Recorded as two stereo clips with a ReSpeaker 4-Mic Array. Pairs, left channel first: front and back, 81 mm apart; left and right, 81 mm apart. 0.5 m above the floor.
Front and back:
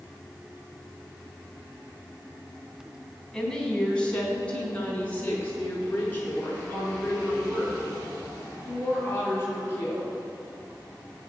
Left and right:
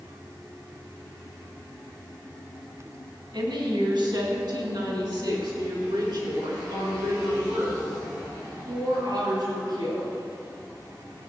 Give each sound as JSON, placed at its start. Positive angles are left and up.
{"t": 3.3, "sound": "a woman speaking", "azimuth_deg": -80, "distance_m": 3.0}